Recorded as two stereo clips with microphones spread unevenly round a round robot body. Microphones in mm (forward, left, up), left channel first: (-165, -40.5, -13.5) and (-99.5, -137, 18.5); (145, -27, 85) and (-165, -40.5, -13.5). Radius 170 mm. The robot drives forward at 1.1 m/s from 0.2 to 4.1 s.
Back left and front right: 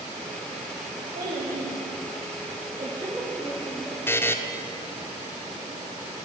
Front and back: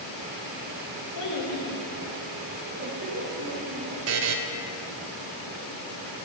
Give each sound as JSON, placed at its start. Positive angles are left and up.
{"t": 1.1, "sound": "a child speaking", "azimuth_deg": -30, "distance_m": 1.6}
{"t": 4.1, "sound": "a buzzer", "azimuth_deg": -175, "distance_m": 0.6}